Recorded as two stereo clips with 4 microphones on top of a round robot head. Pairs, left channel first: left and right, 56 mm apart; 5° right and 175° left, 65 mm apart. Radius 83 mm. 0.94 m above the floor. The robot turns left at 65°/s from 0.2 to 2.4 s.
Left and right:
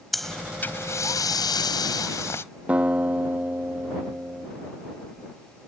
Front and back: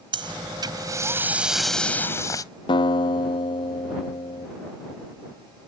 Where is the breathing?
Straight behind; by 2.4 s 35° left.